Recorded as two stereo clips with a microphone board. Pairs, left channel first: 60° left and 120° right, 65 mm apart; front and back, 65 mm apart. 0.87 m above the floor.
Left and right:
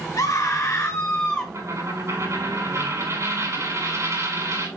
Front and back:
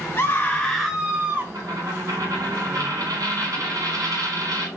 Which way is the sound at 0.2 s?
50° left.